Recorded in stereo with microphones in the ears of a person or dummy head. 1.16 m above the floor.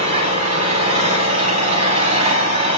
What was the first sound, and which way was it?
An engine running, 40° right (ahead or behind).